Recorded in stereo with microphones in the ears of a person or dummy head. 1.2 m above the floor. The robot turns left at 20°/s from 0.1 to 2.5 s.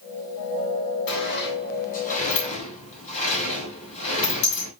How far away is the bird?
No bird in this recording.